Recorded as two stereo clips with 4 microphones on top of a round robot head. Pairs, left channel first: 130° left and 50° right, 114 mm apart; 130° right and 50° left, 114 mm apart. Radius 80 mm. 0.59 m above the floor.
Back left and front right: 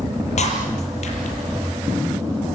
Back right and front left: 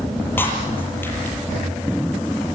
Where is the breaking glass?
155° left, 7 m.